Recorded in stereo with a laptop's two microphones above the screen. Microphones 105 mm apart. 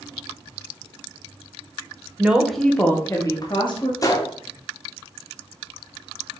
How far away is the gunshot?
About 0.6 m.